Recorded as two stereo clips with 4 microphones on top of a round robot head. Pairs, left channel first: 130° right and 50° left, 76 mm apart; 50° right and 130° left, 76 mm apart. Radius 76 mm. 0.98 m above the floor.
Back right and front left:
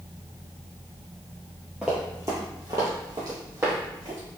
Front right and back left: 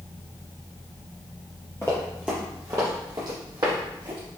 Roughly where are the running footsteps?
Ahead right.